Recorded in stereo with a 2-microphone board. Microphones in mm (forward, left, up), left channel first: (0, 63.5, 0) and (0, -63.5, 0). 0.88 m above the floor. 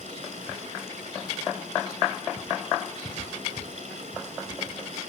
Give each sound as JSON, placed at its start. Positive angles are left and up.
{"t": 0.0, "sound": "running water", "side_deg": -80, "distance_m": 7.5}